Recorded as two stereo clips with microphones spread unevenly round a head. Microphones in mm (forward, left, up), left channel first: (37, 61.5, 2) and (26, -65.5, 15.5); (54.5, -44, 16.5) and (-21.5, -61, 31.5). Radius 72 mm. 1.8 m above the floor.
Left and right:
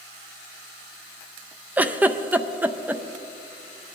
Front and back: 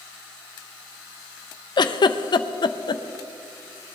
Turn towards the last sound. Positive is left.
turn(degrees=-15)